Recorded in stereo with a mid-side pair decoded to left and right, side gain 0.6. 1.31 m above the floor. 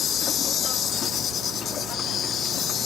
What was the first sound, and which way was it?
An insect, 50° left.